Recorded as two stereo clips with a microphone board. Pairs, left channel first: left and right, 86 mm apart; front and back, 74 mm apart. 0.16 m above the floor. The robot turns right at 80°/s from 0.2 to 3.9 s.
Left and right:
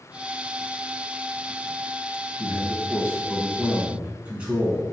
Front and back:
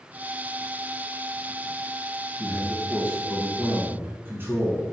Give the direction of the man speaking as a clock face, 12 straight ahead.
9 o'clock.